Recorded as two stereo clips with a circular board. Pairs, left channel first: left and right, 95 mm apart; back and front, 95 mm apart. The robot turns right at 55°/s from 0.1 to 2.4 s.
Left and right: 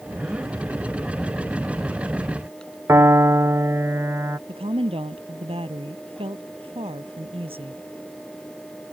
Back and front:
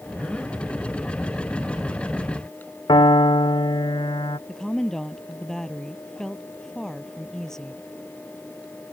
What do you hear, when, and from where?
2.9 s a piano: 150° right
4.5 s a woman speaking: 95° right